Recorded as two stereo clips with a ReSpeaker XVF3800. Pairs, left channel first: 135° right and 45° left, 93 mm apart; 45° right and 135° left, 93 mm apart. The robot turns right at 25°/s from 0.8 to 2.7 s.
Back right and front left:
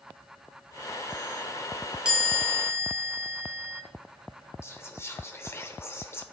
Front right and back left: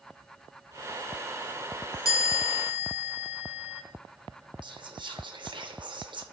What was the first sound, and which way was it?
A chime, 30° right.